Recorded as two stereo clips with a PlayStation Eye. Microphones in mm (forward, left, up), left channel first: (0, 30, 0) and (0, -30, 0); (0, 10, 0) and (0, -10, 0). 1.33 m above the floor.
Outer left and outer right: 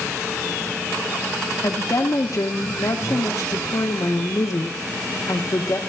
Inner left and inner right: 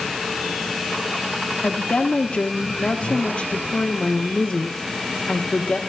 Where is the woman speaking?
70° left (ahead or behind), 1.4 m.